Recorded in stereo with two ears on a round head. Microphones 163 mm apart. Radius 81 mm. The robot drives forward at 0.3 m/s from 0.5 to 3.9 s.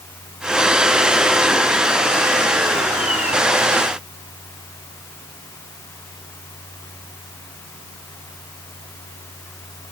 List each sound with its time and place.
Only background noise.